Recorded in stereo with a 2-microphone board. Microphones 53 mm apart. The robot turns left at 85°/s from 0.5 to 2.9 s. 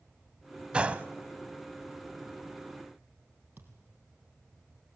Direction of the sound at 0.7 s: 20° right (ahead or behind).